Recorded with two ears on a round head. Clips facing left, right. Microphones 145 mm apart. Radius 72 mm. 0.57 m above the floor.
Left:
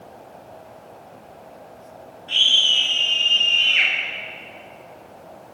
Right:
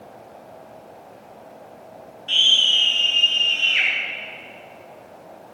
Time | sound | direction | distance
2.3 | a scream | 35° right (ahead or behind) | 9.5 m